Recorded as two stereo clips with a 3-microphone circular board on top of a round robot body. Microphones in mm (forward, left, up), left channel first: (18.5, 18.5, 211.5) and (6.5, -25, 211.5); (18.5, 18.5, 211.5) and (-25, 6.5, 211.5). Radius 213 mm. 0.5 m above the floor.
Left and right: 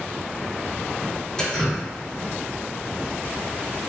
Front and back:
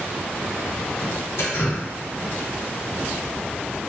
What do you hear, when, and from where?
1.4 s dripping: straight ahead, 0.9 m